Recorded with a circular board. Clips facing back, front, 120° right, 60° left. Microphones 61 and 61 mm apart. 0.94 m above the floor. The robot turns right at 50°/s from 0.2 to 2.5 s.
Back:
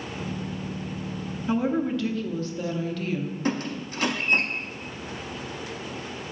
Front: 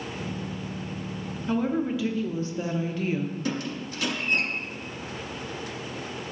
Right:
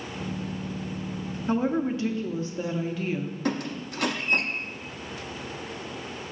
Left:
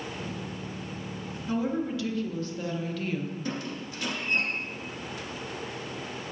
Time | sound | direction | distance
1.5 | a woman speaking | 105° right | 0.7 m
3.5 | a squeak | 135° right | 0.8 m